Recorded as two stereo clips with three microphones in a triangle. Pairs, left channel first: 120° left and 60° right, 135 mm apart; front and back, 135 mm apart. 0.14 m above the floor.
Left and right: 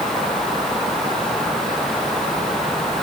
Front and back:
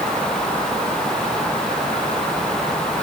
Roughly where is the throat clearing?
I don't hear throat clearing.